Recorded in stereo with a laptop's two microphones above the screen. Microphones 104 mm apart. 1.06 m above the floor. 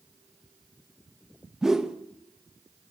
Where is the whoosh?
5° right (ahead or behind), 0.9 m.